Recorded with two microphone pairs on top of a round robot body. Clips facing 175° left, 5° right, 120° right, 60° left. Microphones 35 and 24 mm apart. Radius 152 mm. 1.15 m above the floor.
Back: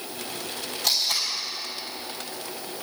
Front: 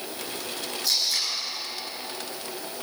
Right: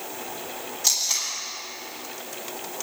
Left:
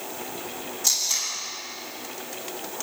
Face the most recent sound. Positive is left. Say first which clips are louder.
# back 1 dB, right 1 dB
turn(degrees=180)